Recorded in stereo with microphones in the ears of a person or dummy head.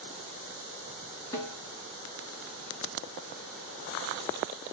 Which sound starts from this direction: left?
A snare drum, at 1.3 s.